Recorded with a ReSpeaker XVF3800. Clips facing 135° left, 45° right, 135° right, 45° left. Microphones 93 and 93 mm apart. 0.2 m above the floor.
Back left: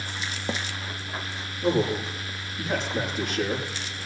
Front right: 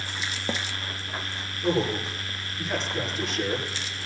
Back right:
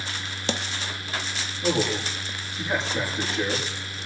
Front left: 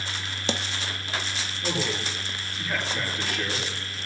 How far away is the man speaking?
About 6.5 m.